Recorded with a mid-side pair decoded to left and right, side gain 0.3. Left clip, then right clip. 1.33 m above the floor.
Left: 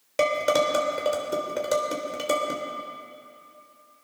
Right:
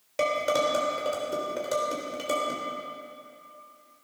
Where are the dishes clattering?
45° left, 3.5 m.